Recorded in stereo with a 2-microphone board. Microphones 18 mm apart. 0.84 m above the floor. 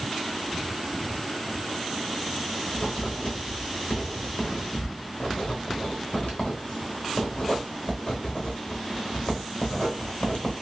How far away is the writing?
About 1.3 m.